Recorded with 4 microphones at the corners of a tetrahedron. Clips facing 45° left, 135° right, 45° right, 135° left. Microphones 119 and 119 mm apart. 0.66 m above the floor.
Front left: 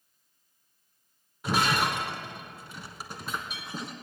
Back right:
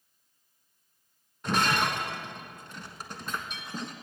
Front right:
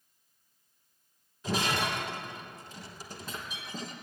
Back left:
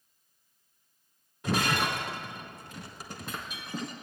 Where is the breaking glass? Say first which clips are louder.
Even, back left 2 dB; 125° left, 1.5 m.